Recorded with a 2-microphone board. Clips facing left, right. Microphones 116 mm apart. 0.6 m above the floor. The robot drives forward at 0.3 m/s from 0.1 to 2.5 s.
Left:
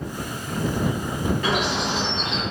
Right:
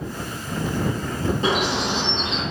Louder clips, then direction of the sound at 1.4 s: Right 2 dB; 25° right (ahead or behind).